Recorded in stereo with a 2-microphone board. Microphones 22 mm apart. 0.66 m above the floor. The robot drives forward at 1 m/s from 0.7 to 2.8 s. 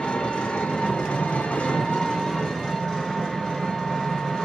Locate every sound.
0.0 s an engine running: 50° left (ahead or behind), 0.9 m; by 4.5 s 25° left (ahead or behind), 1.7 m